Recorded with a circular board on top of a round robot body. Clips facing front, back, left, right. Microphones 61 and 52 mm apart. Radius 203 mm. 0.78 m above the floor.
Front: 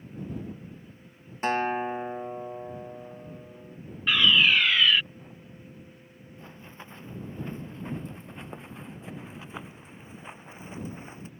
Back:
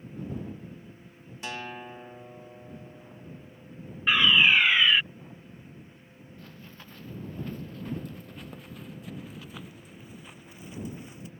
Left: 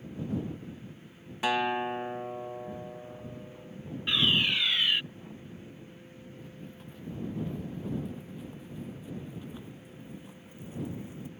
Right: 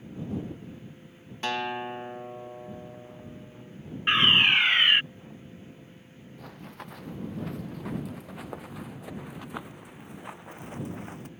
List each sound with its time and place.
1.4 s a guitar: 15° left
4.1 s a fire alarm: 115° right
6.4 s running footsteps: 70° right; by 11.3 s 60° right